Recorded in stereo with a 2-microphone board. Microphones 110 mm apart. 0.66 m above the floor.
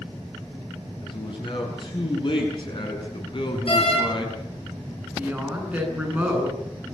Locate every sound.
1.0 s a man speaking: 50° left (ahead or behind), 9 m; by 4.4 s 45° left (ahead or behind), 6 m
3.7 s a door slam: 60° left (ahead or behind), 8.5 m
5.2 s a woman speaking: 15° right (ahead or behind), 9 m